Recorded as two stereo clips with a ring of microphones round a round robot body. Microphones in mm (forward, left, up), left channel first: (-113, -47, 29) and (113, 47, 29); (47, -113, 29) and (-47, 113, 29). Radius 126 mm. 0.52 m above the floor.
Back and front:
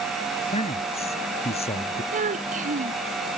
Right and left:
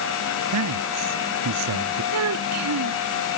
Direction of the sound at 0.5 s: 135° left.